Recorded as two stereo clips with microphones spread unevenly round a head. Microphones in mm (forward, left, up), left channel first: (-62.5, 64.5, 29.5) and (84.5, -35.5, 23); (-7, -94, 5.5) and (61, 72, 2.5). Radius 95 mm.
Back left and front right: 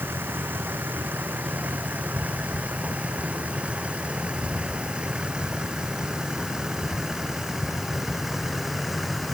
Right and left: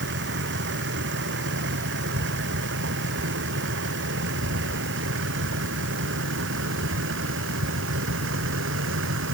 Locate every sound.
0.0 s a vehicle: 45° left; by 9.3 s 55° left